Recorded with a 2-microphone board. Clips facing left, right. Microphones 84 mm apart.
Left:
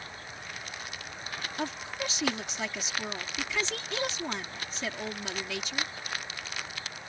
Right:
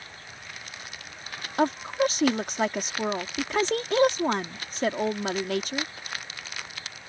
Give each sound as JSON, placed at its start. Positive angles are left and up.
{"t": 1.6, "sound": "a woman speaking", "side_deg": -55}